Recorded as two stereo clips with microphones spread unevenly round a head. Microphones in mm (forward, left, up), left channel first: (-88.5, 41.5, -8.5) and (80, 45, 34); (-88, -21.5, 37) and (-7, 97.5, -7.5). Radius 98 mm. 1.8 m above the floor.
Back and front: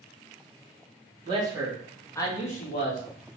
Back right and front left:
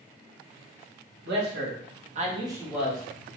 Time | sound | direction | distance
1.2 | a man speaking | 55° left | 1.2 m